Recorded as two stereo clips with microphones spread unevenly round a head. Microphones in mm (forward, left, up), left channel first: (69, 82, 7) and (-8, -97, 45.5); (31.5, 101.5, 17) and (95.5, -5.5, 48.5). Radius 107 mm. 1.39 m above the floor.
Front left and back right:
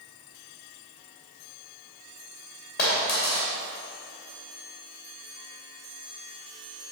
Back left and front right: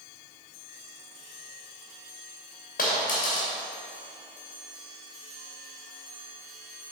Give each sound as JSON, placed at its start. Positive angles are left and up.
{"t": 2.8, "sound": "a dropped coin", "azimuth_deg": 115, "distance_m": 2.5}